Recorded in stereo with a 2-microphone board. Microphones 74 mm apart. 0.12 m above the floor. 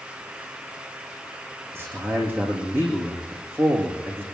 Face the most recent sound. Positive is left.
turn(degrees=-30)  # may be behind; listen again after turning